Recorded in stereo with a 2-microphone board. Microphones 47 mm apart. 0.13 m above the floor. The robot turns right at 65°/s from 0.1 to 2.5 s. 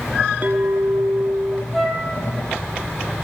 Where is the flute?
5° left (ahead or behind), 2 m; by 2.1 s 15° right (ahead or behind), 2 m.